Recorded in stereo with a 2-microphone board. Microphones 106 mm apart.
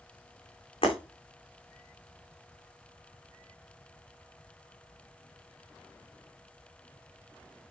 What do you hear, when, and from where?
0.8 s breaking glass: 55° left (ahead or behind), 7 m